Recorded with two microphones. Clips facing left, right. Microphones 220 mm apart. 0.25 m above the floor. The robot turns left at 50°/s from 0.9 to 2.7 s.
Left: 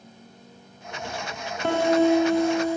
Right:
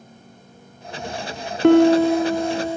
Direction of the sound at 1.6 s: 100° right.